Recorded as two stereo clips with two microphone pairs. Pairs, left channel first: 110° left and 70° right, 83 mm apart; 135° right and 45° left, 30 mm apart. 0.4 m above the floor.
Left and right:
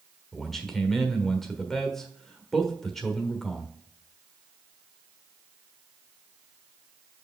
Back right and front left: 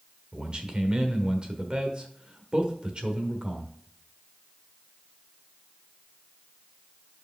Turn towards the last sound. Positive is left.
turn(degrees=30)